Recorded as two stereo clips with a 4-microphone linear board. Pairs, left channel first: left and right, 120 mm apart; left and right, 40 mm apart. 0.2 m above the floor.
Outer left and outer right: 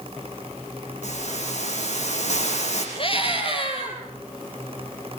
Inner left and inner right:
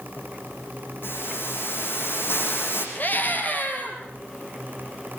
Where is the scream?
50° left (ahead or behind), 6.5 m.